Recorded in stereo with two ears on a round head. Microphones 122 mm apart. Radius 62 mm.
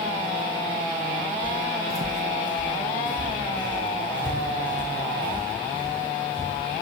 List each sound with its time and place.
1.4 s footsteps: 10° right (ahead or behind), 0.6 m; by 6.5 s 30° right (ahead or behind), 4 m